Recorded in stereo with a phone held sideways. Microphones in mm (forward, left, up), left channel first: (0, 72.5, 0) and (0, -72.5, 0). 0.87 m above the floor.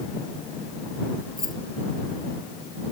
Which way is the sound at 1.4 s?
65° right (ahead or behind).